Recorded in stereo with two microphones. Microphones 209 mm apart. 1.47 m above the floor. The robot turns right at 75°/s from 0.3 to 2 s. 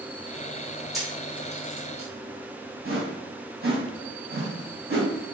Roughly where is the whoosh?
Right.